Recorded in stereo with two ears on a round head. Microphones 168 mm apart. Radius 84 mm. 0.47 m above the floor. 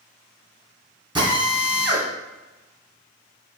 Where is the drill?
25° right (ahead or behind), 2 m.